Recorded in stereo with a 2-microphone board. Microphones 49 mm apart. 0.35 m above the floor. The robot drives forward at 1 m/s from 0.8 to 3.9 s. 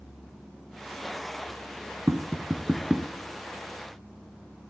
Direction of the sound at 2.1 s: 55° right (ahead or behind).